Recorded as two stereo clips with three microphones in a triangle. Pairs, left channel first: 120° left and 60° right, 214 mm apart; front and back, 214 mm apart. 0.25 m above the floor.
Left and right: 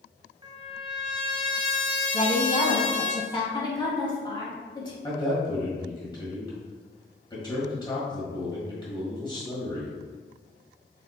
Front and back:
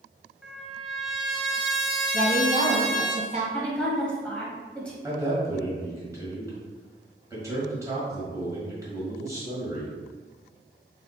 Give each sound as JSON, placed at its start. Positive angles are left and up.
{"t": 0.4, "sound": "a trumpet", "azimuth_deg": -95, "distance_m": 0.7}
{"t": 2.1, "sound": "a woman speaking", "azimuth_deg": 160, "distance_m": 1.3}
{"t": 3.5, "sound": "a woman speaking", "azimuth_deg": 80, "distance_m": 1.1}
{"t": 5.0, "sound": "a man speaking", "azimuth_deg": 135, "distance_m": 1.5}